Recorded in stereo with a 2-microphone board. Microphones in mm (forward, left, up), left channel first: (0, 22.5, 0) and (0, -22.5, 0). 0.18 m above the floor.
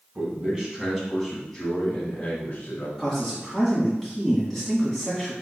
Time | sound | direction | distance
0.1 | a man speaking | 20° right (ahead or behind) | 1.5 m
3.0 | a man speaking | 10° left (ahead or behind) | 1.4 m